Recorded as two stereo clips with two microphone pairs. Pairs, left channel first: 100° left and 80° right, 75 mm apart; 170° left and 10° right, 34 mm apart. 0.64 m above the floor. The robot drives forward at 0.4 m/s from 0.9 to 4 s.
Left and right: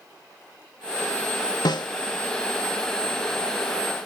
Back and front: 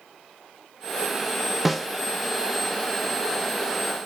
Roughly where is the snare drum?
Left.